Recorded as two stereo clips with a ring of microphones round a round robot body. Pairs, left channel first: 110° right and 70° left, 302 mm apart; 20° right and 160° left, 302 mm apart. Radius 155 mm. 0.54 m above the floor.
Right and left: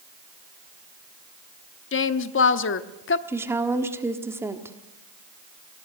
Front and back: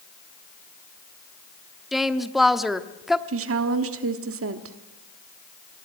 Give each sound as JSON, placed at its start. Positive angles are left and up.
{"t": 1.9, "sound": "a woman speaking", "azimuth_deg": -115, "distance_m": 0.9}
{"t": 3.3, "sound": "a woman speaking", "azimuth_deg": 145, "distance_m": 1.2}